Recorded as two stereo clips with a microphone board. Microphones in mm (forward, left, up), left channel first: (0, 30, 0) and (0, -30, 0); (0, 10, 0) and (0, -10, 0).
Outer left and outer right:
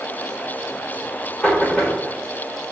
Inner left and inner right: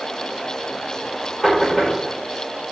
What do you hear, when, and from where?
1.4 s knocking: 10° left (ahead or behind), 4.5 m